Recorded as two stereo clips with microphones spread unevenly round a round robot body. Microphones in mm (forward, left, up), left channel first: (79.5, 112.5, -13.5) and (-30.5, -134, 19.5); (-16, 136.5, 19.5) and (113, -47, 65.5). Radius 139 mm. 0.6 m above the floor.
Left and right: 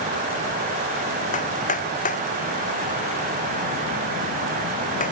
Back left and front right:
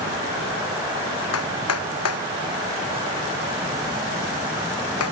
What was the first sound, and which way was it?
Hammering, 130° left.